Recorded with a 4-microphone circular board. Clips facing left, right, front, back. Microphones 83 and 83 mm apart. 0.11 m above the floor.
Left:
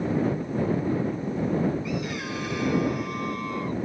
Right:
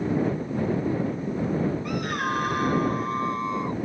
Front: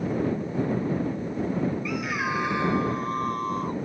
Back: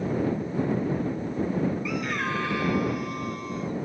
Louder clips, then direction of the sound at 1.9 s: Right 3 dB, front 1 dB; 90° right.